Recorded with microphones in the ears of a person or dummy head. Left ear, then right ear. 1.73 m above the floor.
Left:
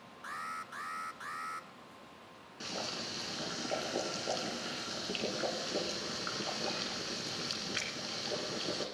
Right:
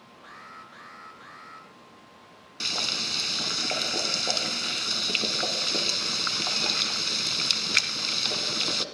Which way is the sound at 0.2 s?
35° left (ahead or behind).